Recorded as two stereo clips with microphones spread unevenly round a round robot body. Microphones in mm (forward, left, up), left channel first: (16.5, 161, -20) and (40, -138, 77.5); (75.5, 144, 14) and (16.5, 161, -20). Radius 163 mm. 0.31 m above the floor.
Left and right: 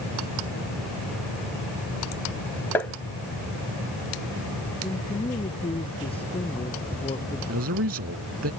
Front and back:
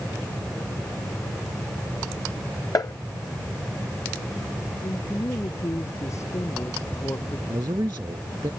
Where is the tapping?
25° left.